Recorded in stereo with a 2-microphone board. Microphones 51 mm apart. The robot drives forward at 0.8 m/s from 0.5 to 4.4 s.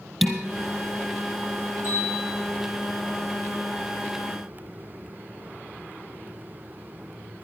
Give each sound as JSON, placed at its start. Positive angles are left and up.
{"t": 0.2, "sound": "dishes clattering", "side_deg": -5, "distance_m": 2.0}
{"t": 1.8, "sound": "a bell", "side_deg": -45, "distance_m": 5.0}